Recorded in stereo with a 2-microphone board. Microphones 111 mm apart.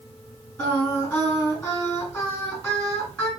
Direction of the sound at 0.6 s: 25° left (ahead or behind).